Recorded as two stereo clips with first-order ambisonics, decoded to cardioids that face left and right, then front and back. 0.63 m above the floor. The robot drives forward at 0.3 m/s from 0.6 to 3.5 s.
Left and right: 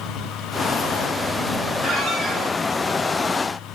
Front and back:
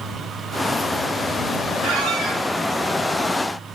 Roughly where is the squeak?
Behind right.